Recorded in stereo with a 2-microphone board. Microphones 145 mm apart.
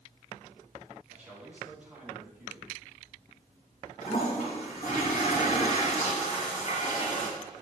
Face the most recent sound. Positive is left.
turn(degrees=55)  # may be behind; listen again after turning